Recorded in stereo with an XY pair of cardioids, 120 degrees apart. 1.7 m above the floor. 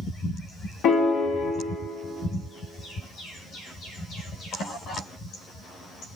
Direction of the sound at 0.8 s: 65° left.